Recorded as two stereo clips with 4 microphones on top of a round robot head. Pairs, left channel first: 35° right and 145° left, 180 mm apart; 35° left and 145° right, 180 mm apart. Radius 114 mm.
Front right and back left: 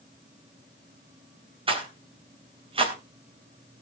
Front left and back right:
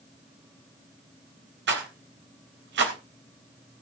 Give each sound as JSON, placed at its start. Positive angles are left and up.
{"t": 1.7, "sound": "a rattle", "azimuth_deg": -155, "distance_m": 3.5}